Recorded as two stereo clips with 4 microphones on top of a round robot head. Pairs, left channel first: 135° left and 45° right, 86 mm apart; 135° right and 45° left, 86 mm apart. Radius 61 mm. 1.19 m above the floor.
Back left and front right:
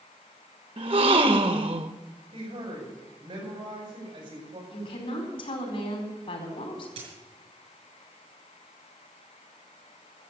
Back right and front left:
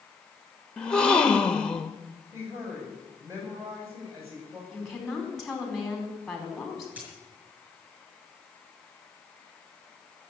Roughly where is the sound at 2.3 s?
Ahead.